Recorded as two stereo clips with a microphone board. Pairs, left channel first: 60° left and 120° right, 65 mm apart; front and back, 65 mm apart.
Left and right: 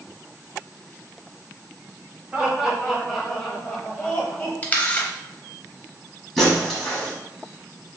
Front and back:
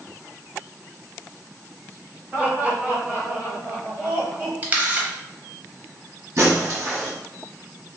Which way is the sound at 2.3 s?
160° right.